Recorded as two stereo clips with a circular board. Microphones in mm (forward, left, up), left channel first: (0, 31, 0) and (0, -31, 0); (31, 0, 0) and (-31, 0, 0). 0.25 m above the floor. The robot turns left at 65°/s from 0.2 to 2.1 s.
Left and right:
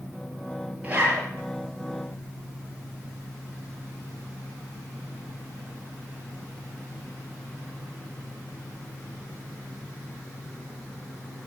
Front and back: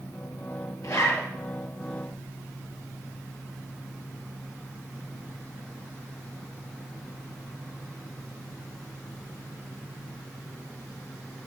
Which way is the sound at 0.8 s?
25° right.